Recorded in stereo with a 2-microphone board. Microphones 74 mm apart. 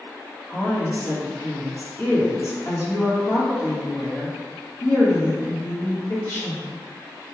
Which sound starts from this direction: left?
A woman speaking, at 0.5 s.